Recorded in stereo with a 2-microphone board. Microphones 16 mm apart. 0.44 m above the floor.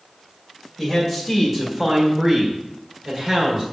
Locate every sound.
0.8 s a man speaking: centre (ahead or behind), 2 m; by 3.6 s 40° right (ahead or behind), 1.7 m